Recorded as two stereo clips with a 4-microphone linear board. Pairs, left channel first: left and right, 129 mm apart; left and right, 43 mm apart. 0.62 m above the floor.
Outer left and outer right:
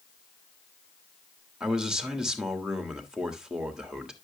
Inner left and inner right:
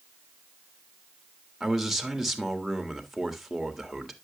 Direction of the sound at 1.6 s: 5° right (ahead or behind).